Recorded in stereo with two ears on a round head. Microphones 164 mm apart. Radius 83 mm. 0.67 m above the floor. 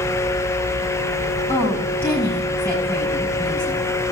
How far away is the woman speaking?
About 6.5 m.